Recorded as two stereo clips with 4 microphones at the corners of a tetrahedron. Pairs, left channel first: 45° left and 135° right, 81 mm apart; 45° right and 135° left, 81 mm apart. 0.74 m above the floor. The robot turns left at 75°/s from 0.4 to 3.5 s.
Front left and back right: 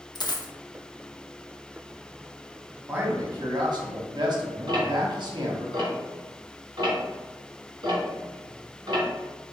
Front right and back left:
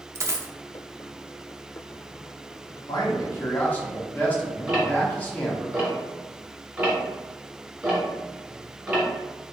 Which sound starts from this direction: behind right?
Ticking, at 4.7 s.